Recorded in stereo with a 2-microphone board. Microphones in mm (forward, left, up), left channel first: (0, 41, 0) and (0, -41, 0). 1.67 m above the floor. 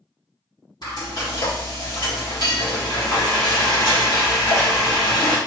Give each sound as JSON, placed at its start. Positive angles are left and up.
{"t": 0.8, "sound": "frying", "side_deg": 55, "distance_m": 1.9}